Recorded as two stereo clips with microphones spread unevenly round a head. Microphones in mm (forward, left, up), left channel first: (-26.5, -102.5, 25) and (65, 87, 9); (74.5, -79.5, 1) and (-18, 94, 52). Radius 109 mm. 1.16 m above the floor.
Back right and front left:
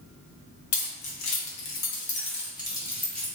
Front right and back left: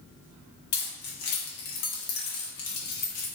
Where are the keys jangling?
115° right, 1.1 m; by 3.3 s 30° right, 1.2 m.